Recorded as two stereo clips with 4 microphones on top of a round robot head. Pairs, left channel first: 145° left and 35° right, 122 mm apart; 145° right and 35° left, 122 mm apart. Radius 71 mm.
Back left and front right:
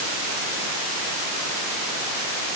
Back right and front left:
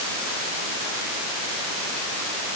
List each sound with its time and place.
Only background noise.